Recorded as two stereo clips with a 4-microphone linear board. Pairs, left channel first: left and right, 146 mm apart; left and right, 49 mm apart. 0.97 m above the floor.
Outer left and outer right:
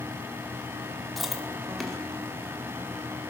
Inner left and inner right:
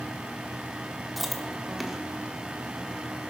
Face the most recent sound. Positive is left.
turn(degrees=0)  # may be behind; listen again after turning